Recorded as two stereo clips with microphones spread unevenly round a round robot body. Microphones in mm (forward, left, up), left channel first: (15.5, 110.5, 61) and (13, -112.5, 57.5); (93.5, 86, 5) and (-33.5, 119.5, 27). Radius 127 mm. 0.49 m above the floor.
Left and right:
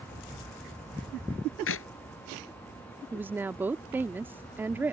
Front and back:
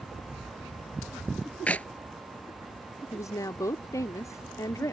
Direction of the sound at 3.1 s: 20° right.